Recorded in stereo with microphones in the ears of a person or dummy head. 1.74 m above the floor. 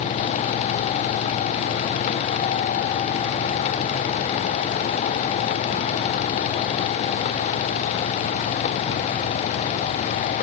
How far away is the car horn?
I don't hear a car horn.